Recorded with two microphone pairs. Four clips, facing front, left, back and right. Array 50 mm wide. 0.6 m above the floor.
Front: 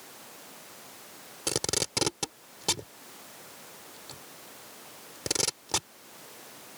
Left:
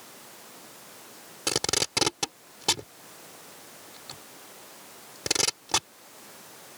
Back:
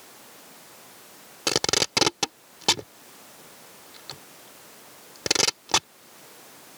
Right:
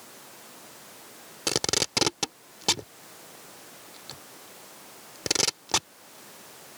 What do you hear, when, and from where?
1.5 s tape being pulled: 165° left